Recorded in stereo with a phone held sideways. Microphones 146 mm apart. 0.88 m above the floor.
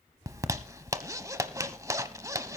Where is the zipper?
20° right (ahead or behind), 0.9 m.